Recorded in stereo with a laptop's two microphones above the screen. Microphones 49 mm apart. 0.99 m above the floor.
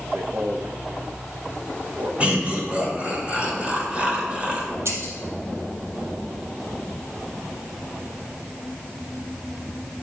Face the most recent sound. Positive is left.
turn(degrees=-70)  # may be behind; listen again after turning